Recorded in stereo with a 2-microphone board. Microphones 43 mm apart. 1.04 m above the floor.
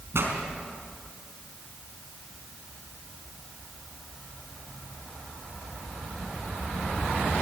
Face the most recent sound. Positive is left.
turn(degrees=-65)  # may be behind; listen again after turning